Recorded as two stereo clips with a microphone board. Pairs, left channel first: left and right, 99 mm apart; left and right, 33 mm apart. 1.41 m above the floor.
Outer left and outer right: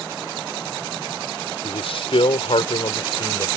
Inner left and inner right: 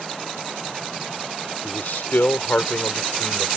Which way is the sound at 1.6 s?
70° left (ahead or behind).